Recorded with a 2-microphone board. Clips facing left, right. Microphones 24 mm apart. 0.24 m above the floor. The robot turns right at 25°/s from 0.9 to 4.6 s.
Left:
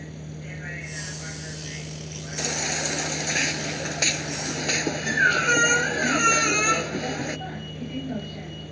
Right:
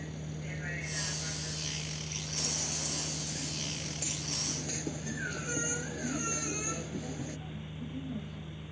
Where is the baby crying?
60° left; by 7.4 s 115° left.